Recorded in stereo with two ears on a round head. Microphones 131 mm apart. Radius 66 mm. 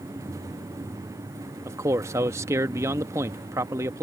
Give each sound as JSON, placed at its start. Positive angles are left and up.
{"t": 1.6, "sound": "a man speaking", "side_deg": -20}